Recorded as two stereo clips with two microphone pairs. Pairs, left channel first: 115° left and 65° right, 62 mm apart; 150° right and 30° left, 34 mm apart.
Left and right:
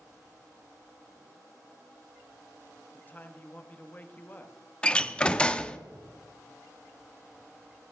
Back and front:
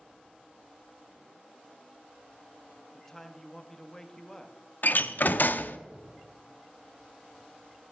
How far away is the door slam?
About 0.6 m.